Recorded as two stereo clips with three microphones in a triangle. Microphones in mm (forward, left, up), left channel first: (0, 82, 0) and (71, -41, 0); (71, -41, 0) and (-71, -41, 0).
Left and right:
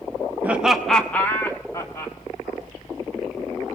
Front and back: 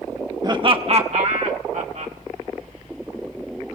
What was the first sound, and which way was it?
Laughter, 135° right.